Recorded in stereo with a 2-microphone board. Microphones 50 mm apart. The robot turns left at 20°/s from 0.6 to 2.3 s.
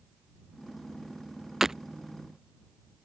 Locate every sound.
1.6 s breaking glass: 10° right (ahead or behind)